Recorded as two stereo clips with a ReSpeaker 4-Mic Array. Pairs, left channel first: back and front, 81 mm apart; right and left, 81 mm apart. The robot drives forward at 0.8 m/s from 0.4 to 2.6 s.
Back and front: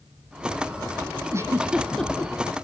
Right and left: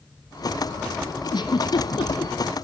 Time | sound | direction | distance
1.3 | a giggle | 55° right | 0.8 m